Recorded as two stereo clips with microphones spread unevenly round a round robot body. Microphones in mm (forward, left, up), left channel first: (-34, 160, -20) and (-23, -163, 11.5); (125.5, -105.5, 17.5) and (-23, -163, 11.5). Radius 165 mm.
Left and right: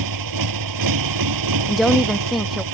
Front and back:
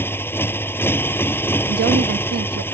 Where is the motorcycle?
55° right.